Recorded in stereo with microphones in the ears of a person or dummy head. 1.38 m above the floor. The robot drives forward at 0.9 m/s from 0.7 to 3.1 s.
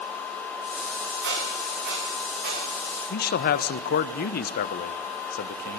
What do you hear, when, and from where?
1.2 s a squeak: 55° right (ahead or behind), 10 m; by 2.6 s 50° right (ahead or behind), 10.5 m
3.1 s a man speaking: 50° left (ahead or behind), 1.0 m